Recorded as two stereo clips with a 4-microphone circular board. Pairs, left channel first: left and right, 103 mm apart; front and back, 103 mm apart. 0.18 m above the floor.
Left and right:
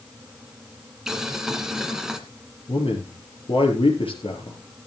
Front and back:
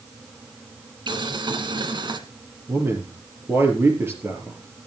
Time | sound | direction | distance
1.1 | boiling | 175° right | 1.5 m
2.7 | a man speaking | 115° left | 4 m